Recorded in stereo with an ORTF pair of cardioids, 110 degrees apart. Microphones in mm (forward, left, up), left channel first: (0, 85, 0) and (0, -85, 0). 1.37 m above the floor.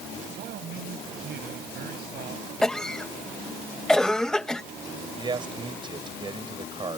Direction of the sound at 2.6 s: 5° left.